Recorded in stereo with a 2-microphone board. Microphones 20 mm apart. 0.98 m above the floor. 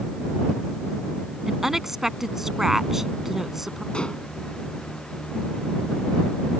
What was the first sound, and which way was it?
A woman speaking, 20° right (ahead or behind).